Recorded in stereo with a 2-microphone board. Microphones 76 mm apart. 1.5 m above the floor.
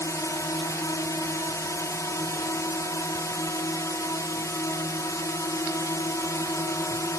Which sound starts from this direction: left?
A drone, at 0.0 s.